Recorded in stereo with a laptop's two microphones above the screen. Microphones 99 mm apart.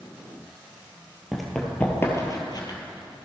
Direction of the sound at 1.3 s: 5° right (ahead or behind).